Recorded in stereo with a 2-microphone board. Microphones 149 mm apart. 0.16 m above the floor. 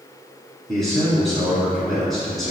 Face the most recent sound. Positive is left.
turn(degrees=0)  # may be behind; listen again after turning